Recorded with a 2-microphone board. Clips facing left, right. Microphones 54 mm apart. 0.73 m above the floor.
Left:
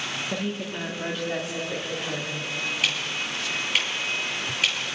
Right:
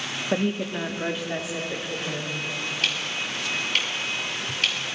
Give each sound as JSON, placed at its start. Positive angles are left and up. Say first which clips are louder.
{"t": 0.3, "sound": "a woman speaking", "louder": "right 9 dB", "side_deg": -30, "distance_m": 1.3}
{"t": 2.8, "sound": "ticking", "louder": "right 1 dB", "side_deg": 10, "distance_m": 4.0}